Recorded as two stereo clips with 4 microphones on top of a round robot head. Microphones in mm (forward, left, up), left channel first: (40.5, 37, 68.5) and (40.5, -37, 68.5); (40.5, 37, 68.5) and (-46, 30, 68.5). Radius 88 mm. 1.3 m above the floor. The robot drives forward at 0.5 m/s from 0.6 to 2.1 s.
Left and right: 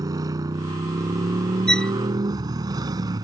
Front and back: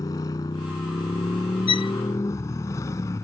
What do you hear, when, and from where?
0.0 s a motorcycle: 55° right; by 3.2 s 60° right
1.7 s a violin: 10° left